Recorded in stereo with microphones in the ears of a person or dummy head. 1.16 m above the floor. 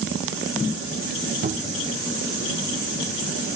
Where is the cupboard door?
45° right (ahead or behind), 1.1 m.